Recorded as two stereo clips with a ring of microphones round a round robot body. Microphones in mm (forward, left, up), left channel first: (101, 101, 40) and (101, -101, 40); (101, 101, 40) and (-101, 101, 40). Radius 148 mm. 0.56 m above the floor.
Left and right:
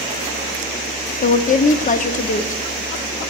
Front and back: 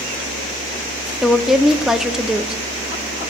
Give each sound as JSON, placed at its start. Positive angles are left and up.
{"t": 1.2, "sound": "a woman speaking", "azimuth_deg": 95, "distance_m": 0.7}